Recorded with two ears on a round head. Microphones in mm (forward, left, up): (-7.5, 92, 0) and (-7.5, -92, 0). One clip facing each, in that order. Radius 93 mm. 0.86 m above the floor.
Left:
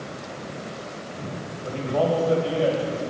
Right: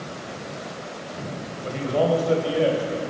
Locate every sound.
1.6 s a man speaking: 25° right (ahead or behind), 4 m; by 3.0 s 15° right (ahead or behind), 3.5 m